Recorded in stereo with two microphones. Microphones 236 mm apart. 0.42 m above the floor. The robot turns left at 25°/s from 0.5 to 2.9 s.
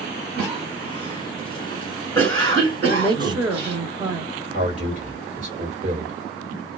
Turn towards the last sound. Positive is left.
turn(degrees=-35)  # may be behind; listen again after turning